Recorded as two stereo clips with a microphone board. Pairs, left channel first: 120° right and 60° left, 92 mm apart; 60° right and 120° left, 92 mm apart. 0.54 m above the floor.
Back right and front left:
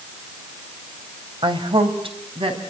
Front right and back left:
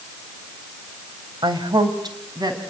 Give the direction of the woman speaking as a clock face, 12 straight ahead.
9 o'clock.